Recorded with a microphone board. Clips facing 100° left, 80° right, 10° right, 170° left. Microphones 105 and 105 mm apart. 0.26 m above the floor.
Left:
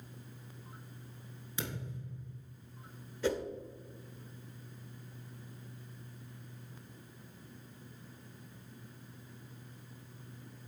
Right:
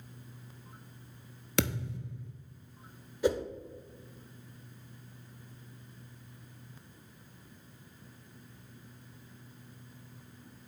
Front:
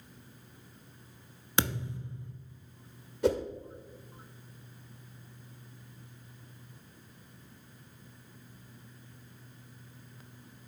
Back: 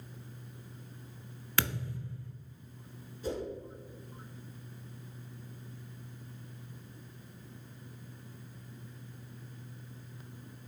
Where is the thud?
80° right, 0.8 m.